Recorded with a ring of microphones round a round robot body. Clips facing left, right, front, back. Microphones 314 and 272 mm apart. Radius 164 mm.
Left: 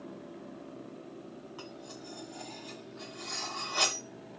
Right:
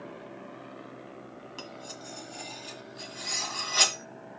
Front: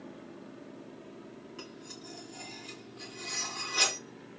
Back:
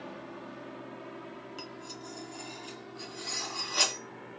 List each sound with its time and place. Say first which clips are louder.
1.6 s cutlery clinking: right 1 dB, back 2 dB; 135° right, 1.7 m